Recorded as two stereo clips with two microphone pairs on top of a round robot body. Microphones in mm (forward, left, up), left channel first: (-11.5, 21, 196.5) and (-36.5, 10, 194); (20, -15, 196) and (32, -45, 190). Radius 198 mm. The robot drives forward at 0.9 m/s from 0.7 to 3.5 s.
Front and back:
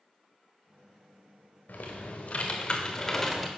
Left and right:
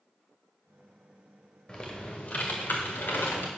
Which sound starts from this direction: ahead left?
Typing on a keyboard, at 1.7 s.